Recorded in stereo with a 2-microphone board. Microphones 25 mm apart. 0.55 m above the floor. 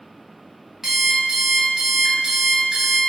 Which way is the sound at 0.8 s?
25° right (ahead or behind).